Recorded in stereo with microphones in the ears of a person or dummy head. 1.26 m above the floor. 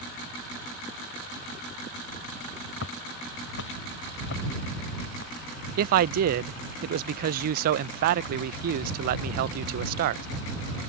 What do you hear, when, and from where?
2.8 s footsteps: 70° left (ahead or behind); by 5.3 s 55° left (ahead or behind)
5.8 s a man speaking: 55° right (ahead or behind)